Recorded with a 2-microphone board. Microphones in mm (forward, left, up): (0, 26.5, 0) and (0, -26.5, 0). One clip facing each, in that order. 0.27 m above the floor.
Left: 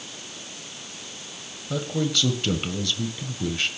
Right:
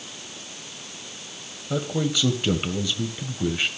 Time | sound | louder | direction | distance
1.7 | a man speaking | right 1 dB | 15° right (ahead or behind) | 1.5 m